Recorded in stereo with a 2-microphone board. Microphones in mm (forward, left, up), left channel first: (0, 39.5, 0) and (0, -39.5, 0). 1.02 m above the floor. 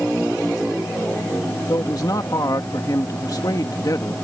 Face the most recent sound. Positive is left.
turn(degrees=55)  # may be behind; listen again after turning